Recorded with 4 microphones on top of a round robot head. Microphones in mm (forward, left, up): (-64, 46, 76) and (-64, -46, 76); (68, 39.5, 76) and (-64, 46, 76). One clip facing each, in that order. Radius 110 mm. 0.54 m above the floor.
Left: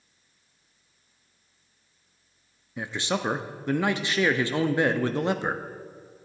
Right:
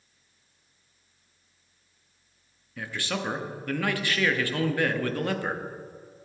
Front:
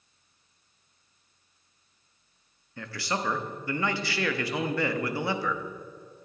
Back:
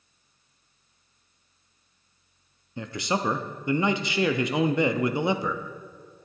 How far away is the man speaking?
About 0.6 m.